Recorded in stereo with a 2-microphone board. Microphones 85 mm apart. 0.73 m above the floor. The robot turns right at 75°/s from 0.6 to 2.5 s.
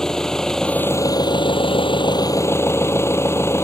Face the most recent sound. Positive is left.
turn(degrees=150)